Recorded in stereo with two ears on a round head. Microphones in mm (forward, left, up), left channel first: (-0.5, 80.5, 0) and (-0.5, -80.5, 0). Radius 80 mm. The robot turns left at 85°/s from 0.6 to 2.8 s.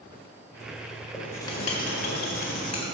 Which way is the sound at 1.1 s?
Straight behind.